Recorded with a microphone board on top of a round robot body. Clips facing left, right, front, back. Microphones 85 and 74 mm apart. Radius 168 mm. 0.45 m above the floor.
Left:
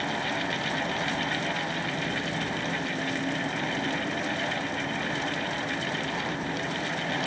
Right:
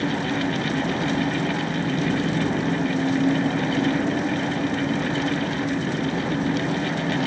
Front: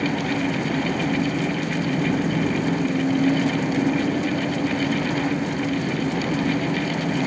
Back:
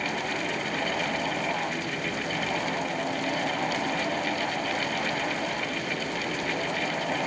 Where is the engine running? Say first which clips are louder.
Right 6 dB, front 7 dB; 40° right.